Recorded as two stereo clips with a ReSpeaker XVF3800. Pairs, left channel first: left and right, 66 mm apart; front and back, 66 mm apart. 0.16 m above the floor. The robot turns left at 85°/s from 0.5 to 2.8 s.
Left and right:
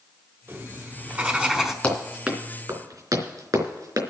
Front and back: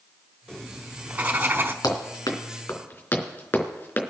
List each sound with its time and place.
0.5 s writing: 75° right, 1.3 m; by 1.7 s straight behind, 1.3 m
1.8 s running footsteps: 15° left, 4 m; by 4.0 s 60° right, 3 m